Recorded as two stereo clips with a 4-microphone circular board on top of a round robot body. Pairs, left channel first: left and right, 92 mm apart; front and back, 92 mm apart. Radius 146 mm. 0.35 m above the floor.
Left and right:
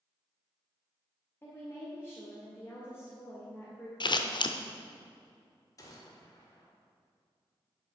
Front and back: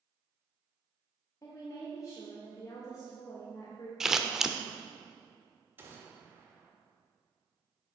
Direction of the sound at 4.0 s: 95° left.